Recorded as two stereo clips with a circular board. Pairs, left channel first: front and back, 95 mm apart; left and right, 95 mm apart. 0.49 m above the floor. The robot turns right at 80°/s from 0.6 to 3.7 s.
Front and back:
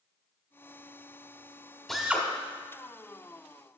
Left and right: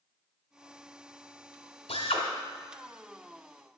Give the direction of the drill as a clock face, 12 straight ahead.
9 o'clock.